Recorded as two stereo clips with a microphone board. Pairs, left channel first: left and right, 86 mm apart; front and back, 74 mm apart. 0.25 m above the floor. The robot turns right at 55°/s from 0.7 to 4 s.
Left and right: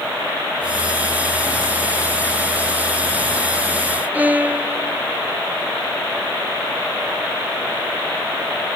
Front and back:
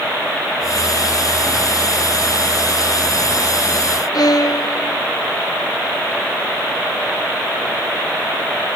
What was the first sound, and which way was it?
A violin, 20° right.